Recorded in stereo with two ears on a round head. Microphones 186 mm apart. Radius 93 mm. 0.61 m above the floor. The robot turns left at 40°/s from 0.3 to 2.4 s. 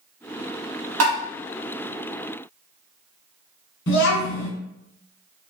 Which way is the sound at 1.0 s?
85° right.